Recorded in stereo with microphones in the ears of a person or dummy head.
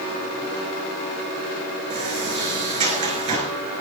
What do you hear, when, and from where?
1.9 s a sliding door: 25° right (ahead or behind), 3.5 m